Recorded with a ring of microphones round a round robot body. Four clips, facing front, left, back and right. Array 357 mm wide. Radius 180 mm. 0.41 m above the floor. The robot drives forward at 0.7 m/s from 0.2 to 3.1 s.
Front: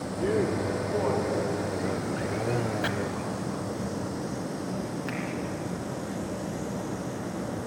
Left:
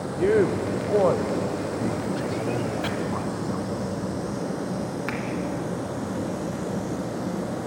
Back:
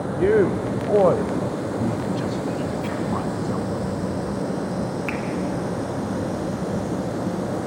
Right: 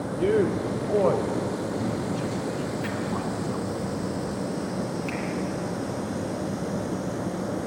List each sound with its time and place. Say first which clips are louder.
0.2 s a man speaking: left 2 dB, back 8 dB; 170° left, 1.2 m; by 3.8 s 175° left, 3 m
2.8 s chopping: left 2 dB, back 2 dB; 40° left, 2 m; by 2.9 s 45° left, 2.0 m
5.1 s a finger snap: left 1 dB, back 6 dB; 125° left, 3 m